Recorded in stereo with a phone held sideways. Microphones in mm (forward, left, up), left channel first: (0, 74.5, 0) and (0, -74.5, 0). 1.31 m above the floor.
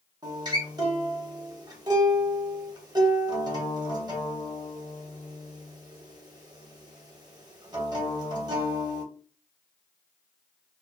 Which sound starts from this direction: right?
A guitar, at 0.2 s.